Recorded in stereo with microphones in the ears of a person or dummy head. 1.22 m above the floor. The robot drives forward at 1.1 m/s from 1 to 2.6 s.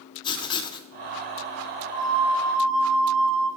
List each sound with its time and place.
0.2 s writing: 20° left (ahead or behind), 0.7 m
1.9 s a flute: 25° right (ahead or behind), 3 m; by 3.5 s 30° right (ahead or behind), 2.5 m